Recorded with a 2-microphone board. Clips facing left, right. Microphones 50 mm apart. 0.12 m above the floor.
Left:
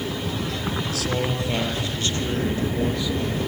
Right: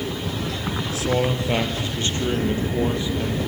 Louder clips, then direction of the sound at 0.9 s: Right 6 dB; 25° right (ahead or behind).